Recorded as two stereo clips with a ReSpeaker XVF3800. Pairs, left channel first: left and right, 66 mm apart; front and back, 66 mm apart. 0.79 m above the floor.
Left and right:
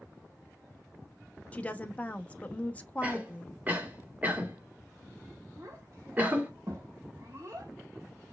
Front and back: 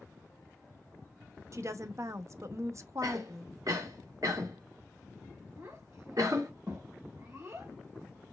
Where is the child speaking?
130° right, 1.8 m.